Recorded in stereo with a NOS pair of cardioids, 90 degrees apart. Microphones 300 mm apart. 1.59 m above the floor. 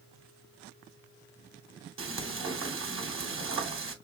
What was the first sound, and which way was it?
Frying, 45° right.